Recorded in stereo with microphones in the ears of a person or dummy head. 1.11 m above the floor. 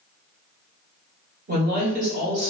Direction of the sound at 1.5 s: 45° right (ahead or behind).